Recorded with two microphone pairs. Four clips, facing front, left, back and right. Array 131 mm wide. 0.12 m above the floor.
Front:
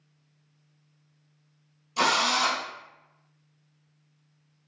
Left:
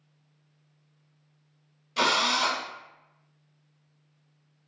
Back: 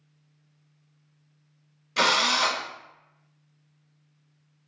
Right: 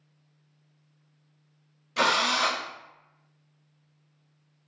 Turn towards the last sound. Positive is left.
turn(degrees=-165)